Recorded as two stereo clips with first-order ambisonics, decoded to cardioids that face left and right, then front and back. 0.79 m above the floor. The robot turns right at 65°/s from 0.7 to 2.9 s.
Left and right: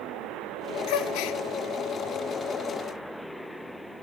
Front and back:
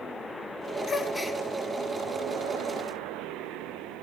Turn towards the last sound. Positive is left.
turn(degrees=-165)